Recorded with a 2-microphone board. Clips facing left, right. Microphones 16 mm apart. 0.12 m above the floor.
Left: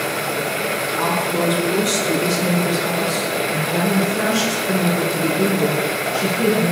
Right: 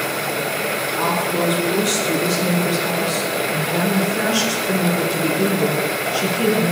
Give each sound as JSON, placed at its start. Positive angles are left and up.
{"t": 1.0, "sound": "a woman speaking", "side_deg": -5, "distance_m": 3.0}